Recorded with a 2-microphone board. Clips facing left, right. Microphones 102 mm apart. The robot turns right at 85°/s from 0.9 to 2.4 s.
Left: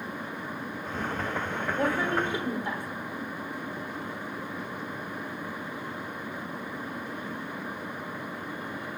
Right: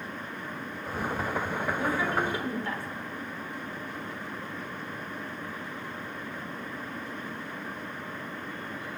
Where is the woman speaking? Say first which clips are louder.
Left 3 dB; 105° left, 3 m; by 2.9 s 160° left, 3 m.